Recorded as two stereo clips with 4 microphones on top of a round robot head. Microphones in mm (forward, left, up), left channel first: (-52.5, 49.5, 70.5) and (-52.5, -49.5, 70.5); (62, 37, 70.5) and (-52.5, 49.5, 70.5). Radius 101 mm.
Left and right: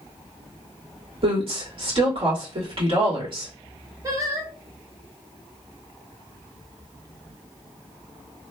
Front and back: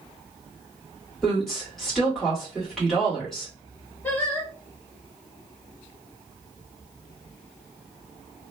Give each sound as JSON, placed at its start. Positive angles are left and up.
{"t": 1.2, "sound": "a woman speaking", "azimuth_deg": -90, "distance_m": 1.8}
{"t": 4.0, "sound": "singing", "azimuth_deg": -65, "distance_m": 1.2}